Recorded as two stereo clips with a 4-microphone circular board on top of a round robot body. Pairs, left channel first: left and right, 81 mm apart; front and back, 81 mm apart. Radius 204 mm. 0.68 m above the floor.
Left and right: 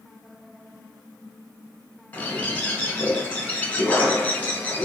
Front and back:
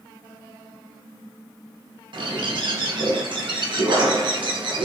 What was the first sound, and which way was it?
A bird, 160° left.